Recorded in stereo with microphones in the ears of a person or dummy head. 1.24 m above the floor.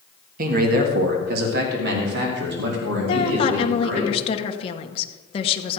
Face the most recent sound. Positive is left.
turn(degrees=35)  # may be behind; listen again after turning